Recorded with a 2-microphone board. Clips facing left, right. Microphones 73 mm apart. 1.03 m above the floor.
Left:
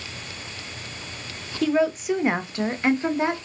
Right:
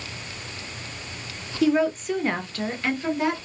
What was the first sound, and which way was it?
A woman speaking, 5° right (ahead or behind).